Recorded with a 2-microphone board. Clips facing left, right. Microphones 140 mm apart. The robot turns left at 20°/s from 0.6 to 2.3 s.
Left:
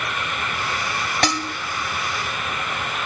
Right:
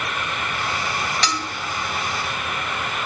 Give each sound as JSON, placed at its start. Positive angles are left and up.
{"t": 1.2, "sound": "dishes clattering", "side_deg": 50, "distance_m": 0.9}